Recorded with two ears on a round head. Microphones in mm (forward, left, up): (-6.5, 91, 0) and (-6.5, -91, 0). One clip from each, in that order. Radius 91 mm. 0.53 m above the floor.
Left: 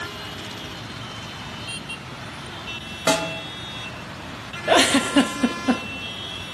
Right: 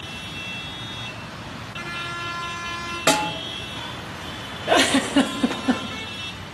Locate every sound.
3.1 s a snare drum: 10° right (ahead or behind), 1.4 m
4.7 s a giggle: 15° left (ahead or behind), 0.7 m